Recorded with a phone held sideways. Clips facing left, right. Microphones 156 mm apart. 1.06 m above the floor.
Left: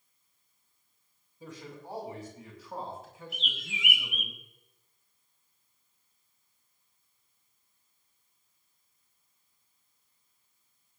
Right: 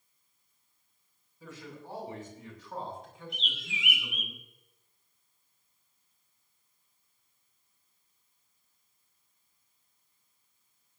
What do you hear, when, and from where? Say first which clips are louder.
1.4 s a man speaking: left 1 dB; 20° left (ahead or behind), 6.5 m; by 4.3 s 5° right (ahead or behind), 7.5 m
3.3 s a bird: even; 50° left (ahead or behind), 1.3 m